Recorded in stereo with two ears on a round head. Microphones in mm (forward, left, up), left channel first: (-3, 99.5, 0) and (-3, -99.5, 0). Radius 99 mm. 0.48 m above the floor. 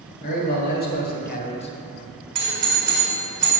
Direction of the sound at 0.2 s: 45° left (ahead or behind).